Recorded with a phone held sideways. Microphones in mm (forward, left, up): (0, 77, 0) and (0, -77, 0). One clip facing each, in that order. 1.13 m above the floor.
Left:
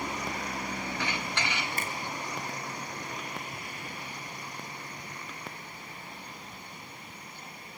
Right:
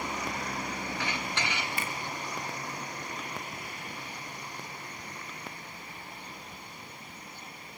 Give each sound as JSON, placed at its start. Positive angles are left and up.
{"t": 1.8, "sound": "a finger snap", "side_deg": 45, "distance_m": 3.0}